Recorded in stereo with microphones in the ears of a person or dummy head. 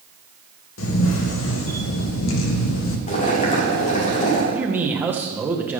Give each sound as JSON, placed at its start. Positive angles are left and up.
{"t": 0.8, "sound": "a camera shutter", "side_deg": 70, "distance_m": 1.5}
{"t": 3.1, "sound": "boiling", "side_deg": 45, "distance_m": 2.0}
{"t": 4.5, "sound": "a man speaking", "side_deg": -10, "distance_m": 1.3}